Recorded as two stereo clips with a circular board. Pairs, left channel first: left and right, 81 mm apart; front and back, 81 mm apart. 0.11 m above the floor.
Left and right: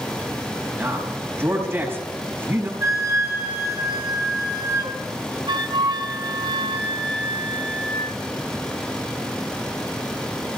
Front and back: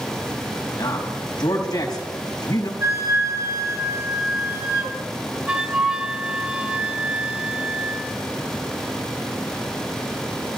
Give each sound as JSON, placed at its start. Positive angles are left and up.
{"t": 0.8, "sound": "a man speaking", "azimuth_deg": -35, "distance_m": 4.5}
{"t": 2.8, "sound": "a flute", "azimuth_deg": -130, "distance_m": 3.0}
{"t": 5.5, "sound": "a flute", "azimuth_deg": -100, "distance_m": 0.7}